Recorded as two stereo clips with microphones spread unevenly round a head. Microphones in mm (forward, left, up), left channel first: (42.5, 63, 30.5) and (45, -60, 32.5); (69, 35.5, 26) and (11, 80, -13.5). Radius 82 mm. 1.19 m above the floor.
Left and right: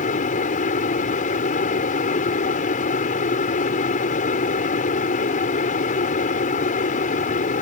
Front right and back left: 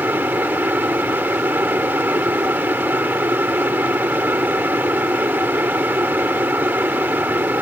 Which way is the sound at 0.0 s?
70° left.